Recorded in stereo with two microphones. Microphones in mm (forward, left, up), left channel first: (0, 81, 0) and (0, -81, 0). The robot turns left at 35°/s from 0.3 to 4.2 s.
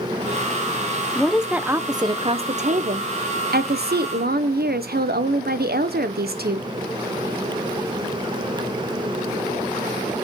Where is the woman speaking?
5° left, 0.8 m; by 6.7 s 105° right, 0.8 m.